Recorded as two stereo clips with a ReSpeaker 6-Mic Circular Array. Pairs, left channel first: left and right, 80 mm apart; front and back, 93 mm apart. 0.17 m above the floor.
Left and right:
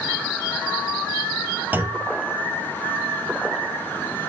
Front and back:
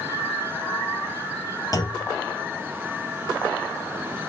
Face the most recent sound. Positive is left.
turn(degrees=-30)